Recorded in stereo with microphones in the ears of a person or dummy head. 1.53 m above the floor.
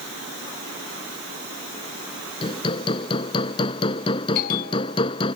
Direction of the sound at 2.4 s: 30° left (ahead or behind).